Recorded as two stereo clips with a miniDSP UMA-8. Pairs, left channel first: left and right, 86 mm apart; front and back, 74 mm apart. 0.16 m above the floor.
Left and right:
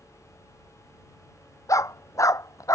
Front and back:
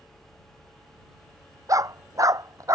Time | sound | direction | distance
1.7 | a dog barking | 140° left | ?